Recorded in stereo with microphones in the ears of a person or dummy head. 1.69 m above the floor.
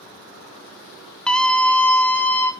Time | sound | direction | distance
1.3 | a scream | 5° left (ahead or behind) | 1.9 m